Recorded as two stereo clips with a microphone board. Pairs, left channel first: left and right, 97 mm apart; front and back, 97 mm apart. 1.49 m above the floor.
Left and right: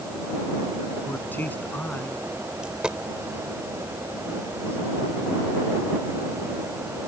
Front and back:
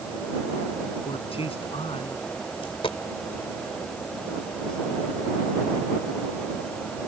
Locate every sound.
1.1 s a man speaking: 15° left
2.6 s a dropped coin: 10° right